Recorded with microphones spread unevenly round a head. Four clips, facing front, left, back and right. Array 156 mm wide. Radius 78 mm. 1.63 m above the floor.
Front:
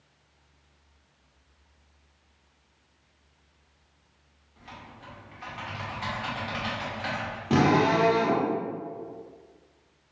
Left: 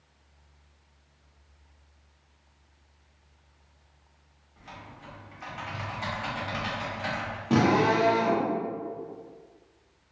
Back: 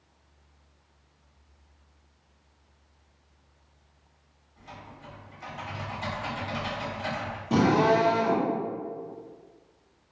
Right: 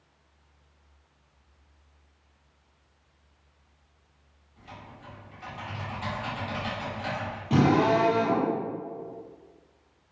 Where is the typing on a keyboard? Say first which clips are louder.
Even, even; 50° left, 1.3 m.